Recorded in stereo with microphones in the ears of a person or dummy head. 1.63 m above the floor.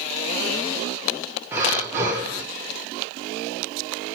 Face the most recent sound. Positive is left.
turn(degrees=-5)  # may be behind; listen again after turning